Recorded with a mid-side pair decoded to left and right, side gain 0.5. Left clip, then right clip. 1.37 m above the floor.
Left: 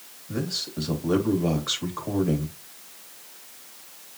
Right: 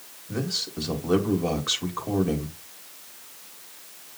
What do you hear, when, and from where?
0.3 s a man speaking: 5° right, 2 m